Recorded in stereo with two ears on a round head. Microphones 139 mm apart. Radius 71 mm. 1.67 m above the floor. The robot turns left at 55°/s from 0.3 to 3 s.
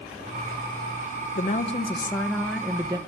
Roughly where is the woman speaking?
Ahead left.